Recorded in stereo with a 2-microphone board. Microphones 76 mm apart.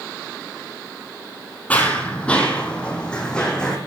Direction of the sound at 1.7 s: 20° left (ahead or behind).